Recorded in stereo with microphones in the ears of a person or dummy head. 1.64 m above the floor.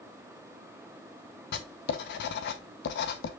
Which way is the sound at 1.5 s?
70° left (ahead or behind).